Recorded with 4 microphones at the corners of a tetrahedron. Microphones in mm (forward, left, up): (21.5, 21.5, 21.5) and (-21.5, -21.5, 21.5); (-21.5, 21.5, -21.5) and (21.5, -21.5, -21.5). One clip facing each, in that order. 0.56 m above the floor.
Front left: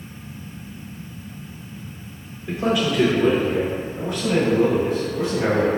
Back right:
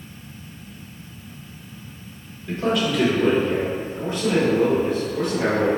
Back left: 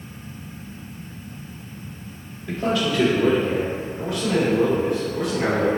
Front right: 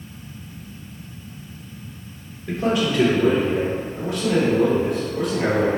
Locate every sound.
2.5 s a man speaking: straight ahead, 1.4 m; by 5.7 s 115° right, 2 m